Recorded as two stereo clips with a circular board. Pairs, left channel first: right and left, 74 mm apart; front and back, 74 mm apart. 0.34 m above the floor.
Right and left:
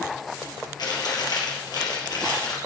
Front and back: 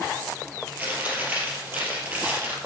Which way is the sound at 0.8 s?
115° right.